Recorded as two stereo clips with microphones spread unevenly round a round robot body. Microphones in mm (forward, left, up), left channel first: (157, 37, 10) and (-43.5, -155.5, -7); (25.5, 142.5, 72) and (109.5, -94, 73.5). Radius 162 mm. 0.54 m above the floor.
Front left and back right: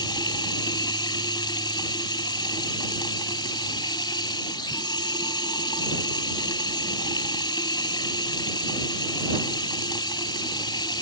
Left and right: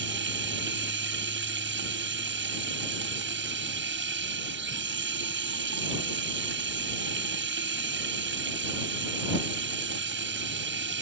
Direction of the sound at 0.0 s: 30° right.